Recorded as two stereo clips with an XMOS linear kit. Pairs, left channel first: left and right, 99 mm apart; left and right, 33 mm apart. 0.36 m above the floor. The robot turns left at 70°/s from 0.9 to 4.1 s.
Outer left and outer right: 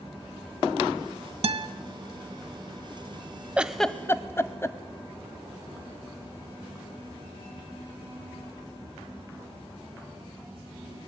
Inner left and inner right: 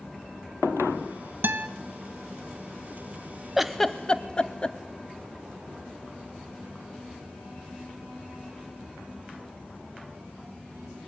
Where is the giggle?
10° right (ahead or behind), 0.8 m; by 4.8 s 25° left (ahead or behind), 0.8 m.